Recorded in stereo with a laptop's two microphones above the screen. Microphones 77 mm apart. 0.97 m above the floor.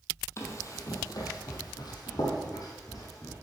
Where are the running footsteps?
40° left (ahead or behind), 1.7 m; by 3.3 s 45° left (ahead or behind), 3 m.